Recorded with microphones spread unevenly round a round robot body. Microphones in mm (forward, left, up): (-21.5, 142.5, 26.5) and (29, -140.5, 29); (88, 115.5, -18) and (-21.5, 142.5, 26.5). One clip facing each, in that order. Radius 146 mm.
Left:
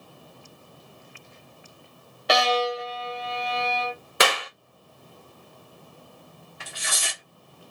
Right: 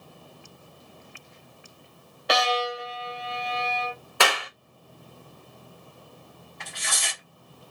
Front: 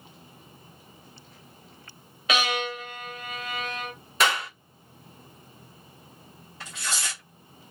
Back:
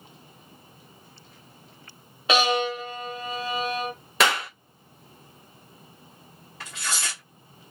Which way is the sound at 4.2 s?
170° left.